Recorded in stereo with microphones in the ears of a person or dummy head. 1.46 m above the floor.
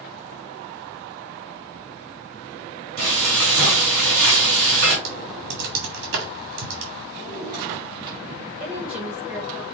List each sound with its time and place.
3.0 s frying: 50° right (ahead or behind), 2.5 m
5.0 s typing on a keyboard: 60° right (ahead or behind), 1.4 m
7.2 s a drawer: 30° right (ahead or behind), 2 m
8.6 s a woman speaking: 20° right (ahead or behind), 1.6 m